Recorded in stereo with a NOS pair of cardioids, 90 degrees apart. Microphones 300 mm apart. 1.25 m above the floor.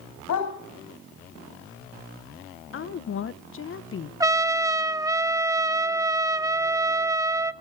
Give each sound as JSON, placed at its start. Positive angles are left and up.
{"t": 0.3, "sound": "a dog barking", "azimuth_deg": 65, "distance_m": 4.0}
{"t": 2.7, "sound": "a woman speaking", "azimuth_deg": 45, "distance_m": 1.1}
{"t": 4.2, "sound": "a trumpet", "azimuth_deg": -10, "distance_m": 1.6}